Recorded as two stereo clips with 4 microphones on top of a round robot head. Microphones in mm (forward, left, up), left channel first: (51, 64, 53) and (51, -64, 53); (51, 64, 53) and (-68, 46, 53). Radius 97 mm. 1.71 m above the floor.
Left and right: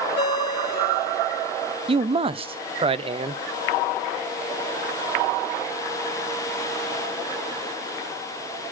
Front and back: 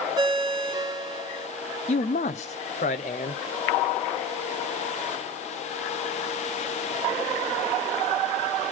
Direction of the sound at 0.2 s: 145° left.